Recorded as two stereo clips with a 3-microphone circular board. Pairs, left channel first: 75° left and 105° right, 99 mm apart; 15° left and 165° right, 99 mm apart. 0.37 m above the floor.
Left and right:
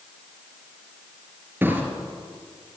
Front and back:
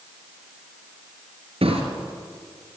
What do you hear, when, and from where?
1.6 s a drawer: 175° right, 3 m